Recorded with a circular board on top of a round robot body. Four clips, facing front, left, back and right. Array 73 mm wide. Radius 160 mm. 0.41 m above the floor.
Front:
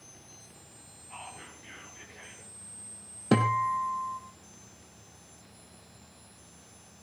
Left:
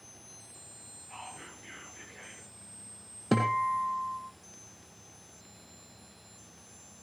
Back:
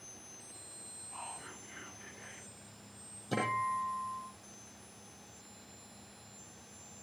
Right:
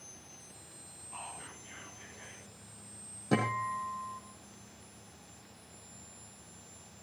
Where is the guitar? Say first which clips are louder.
Left 5 dB, front 8 dB; 30° left, 3.5 m.